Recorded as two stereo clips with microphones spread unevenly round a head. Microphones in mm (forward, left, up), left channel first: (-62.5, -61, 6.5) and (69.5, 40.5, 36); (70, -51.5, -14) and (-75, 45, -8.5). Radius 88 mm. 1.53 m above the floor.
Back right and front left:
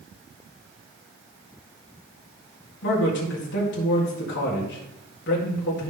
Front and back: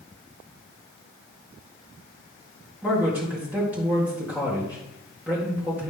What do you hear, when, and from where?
2.8 s a man speaking: 130° right, 1.9 m